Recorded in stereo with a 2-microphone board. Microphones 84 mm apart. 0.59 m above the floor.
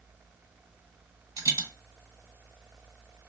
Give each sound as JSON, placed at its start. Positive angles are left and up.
{"t": 1.4, "sound": "a dropped coin", "side_deg": -50, "distance_m": 1.3}